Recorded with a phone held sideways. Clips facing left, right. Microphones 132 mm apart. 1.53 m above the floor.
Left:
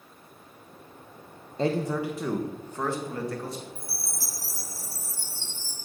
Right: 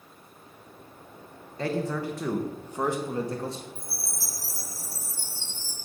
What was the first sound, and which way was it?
A man speaking, 25° left (ahead or behind).